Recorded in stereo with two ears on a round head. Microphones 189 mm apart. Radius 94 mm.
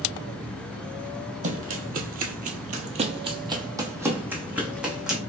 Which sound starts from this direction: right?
Running footsteps, at 1.4 s.